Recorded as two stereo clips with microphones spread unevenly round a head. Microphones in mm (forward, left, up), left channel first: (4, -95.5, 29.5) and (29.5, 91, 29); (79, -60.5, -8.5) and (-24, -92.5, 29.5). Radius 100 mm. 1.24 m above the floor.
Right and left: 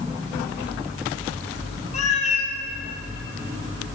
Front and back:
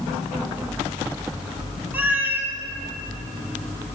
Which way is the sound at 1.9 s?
135° right.